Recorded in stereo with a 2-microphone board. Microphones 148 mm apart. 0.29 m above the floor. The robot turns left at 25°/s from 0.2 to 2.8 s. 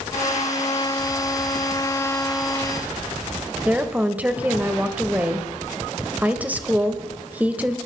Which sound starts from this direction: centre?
A woman speaking, at 3.6 s.